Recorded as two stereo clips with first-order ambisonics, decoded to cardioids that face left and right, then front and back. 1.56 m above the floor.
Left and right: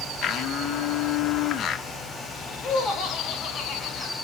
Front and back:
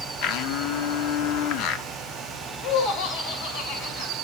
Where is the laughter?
20° left, 1.8 m.